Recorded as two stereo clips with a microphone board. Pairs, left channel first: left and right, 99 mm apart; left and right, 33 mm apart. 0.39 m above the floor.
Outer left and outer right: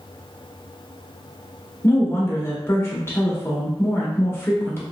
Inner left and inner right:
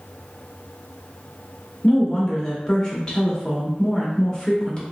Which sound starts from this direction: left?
A woman speaking, at 1.8 s.